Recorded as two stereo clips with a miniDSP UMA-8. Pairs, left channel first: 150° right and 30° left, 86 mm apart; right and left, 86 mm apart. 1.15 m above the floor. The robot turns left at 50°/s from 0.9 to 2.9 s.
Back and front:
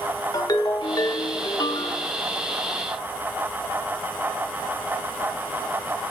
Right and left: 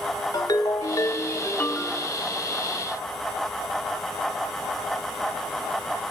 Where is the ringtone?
120° right, 1.0 m; by 2.1 s straight behind, 1.0 m.